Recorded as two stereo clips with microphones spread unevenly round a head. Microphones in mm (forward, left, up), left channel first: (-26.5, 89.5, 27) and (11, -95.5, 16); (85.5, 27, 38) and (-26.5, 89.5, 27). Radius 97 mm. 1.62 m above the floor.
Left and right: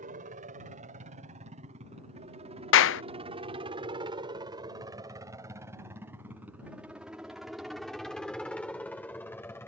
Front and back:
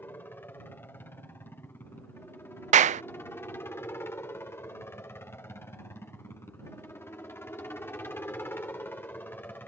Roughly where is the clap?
Behind left.